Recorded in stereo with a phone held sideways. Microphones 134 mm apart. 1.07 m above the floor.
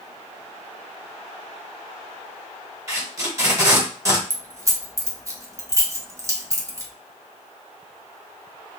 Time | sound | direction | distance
2.9 | tape being pulled | 20° right (ahead or behind) | 1.7 m
4.3 | keys jangling | 25° right (ahead or behind) | 0.7 m